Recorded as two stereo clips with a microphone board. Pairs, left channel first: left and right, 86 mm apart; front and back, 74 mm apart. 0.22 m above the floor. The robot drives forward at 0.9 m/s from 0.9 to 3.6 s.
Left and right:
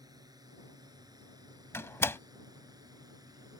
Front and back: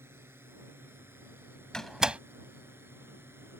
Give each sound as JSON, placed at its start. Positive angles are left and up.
{"t": 0.0, "sound": "a drone", "azimuth_deg": -125}
{"t": 1.7, "sound": "a door slam", "azimuth_deg": 70}